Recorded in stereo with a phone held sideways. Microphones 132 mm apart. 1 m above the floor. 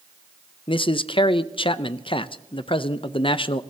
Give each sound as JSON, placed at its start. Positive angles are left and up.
{"t": 0.7, "sound": "a man speaking", "side_deg": 40, "distance_m": 0.6}